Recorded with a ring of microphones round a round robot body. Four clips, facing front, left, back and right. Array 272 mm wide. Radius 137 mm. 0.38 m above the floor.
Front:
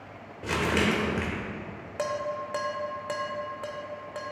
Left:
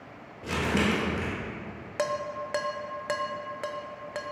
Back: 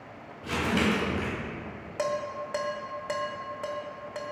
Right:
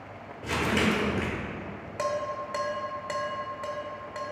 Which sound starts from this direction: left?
Dishes clattering, at 2.0 s.